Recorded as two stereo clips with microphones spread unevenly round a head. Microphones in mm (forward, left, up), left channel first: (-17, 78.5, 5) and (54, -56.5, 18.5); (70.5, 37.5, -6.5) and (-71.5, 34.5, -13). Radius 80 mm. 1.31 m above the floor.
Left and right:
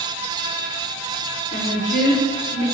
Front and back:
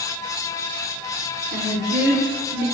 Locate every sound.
1.5 s a woman speaking: 165° left, 0.8 m